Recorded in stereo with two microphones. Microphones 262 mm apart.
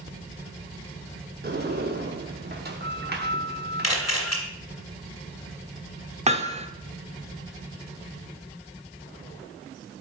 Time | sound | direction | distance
1.4 | a sliding door | 40° right (ahead or behind) | 0.9 m
3.8 | a camera shutter | 75° left (ahead or behind) | 1.9 m
6.3 | hammering | 25° right (ahead or behind) | 0.6 m